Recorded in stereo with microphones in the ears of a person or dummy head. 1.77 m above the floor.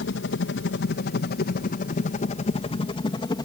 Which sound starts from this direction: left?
A helicopter, at 0.0 s.